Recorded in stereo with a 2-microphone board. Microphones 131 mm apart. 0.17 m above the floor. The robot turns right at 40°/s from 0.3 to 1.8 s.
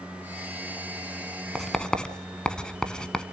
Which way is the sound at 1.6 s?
Centre (ahead or behind).